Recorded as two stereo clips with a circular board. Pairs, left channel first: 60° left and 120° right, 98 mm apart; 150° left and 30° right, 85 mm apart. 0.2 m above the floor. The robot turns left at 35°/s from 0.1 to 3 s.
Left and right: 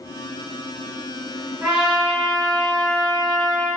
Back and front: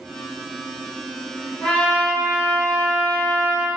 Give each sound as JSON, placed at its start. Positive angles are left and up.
{"t": 1.6, "sound": "a trumpet", "azimuth_deg": -175, "distance_m": 1.1}